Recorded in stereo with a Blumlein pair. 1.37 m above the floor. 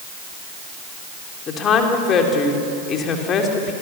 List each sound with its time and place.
1.5 s a woman speaking: 25° left, 3 m